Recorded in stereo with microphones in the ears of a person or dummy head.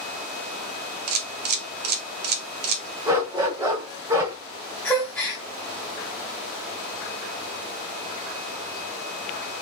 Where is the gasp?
5° left (ahead or behind), 0.7 m.